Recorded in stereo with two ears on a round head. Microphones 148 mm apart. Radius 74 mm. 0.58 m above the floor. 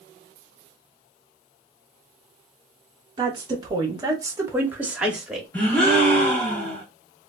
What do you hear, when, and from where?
3.2 s a woman speaking: 25° right (ahead or behind), 1.0 m; by 5.5 s centre (ahead or behind), 1.2 m
5.5 s a gasp: 10° left (ahead or behind), 0.9 m